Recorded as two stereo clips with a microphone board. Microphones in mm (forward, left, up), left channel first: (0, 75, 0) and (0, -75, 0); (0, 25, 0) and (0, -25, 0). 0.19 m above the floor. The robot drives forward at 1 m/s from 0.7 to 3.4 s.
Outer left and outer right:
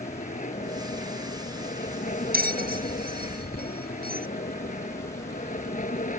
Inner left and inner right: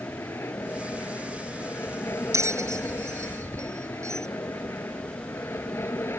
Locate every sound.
0.0 s an aircraft: 60° left (ahead or behind)
2.3 s a bell: 80° right; by 4.3 s 90° right